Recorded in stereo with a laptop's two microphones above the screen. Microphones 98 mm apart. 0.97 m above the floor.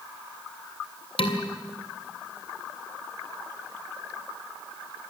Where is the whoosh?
I don't hear a whoosh.